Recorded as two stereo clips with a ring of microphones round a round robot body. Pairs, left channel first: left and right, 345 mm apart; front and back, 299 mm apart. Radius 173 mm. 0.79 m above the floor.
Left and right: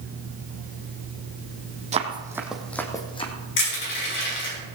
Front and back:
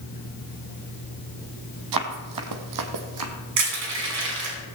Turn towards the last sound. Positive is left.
turn(degrees=150)